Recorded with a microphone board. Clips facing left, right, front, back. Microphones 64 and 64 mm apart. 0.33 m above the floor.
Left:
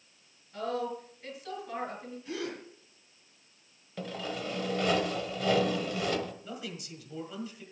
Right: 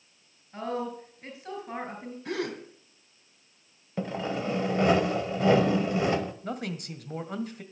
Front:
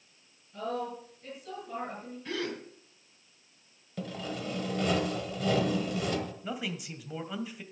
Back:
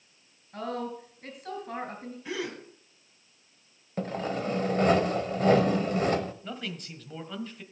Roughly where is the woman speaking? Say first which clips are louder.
Right 1 dB, back 1 dB; behind right.